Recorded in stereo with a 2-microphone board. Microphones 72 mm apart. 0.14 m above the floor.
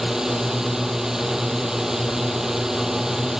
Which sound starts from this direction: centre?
A drone, at 0.0 s.